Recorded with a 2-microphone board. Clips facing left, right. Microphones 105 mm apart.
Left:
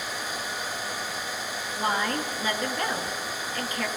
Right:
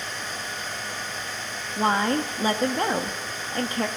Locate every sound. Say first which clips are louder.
1.8 s a woman speaking: right 5 dB; 30° right (ahead or behind), 1.3 m